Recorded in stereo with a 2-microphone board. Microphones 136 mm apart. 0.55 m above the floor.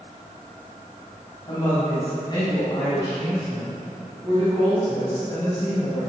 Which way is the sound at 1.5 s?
35° left (ahead or behind).